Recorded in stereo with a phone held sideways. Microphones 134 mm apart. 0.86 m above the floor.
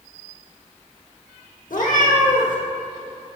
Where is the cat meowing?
85° left, 1.2 m.